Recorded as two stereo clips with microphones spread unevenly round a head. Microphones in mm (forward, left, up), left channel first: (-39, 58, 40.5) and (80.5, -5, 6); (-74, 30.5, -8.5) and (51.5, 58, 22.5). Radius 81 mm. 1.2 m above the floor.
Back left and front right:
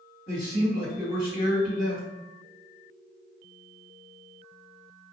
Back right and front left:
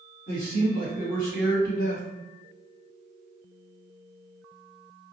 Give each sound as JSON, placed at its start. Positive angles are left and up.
{"t": 0.3, "sound": "a man speaking", "azimuth_deg": -160, "distance_m": 1.6}